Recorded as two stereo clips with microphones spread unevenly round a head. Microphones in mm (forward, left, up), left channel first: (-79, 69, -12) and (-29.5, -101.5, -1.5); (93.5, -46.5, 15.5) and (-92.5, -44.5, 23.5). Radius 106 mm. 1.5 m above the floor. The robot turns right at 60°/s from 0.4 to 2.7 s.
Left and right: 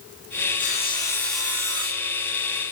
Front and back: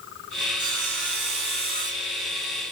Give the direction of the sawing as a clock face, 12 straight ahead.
7 o'clock.